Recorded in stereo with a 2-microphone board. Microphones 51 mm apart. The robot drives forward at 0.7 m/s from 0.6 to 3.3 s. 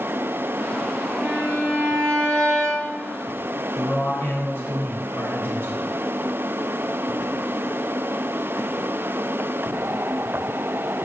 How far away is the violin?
About 1.6 m.